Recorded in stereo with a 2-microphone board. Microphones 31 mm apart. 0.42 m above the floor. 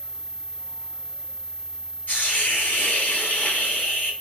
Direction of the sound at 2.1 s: 75° left (ahead or behind).